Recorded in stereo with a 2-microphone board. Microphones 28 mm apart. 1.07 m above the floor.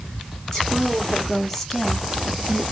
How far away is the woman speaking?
About 0.8 m.